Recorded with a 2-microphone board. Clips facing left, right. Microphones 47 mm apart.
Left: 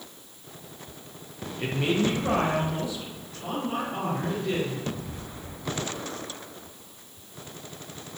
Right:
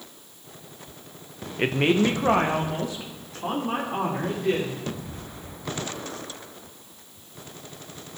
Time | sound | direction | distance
1.6 | a woman speaking | 55° right (ahead or behind) | 0.7 m